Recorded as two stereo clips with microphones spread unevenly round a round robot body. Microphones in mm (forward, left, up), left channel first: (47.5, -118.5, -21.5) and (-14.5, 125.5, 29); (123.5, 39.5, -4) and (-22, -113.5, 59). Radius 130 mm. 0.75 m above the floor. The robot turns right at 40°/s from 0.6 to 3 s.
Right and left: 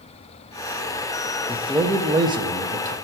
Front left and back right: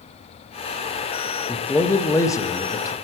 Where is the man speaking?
5° right, 0.6 m; by 2.9 s 50° left, 0.6 m.